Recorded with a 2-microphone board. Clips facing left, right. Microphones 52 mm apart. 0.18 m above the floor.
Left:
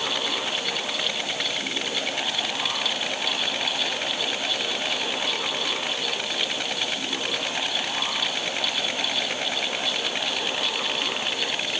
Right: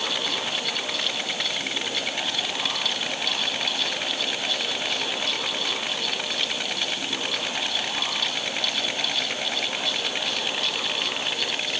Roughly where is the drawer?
No drawer in this recording.